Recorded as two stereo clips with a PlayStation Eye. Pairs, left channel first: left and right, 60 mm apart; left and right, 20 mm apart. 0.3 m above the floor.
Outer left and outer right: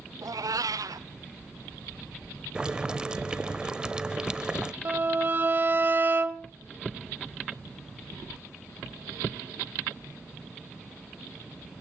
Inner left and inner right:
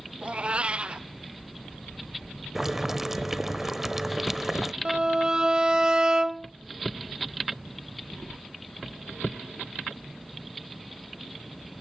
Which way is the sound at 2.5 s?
15° right (ahead or behind).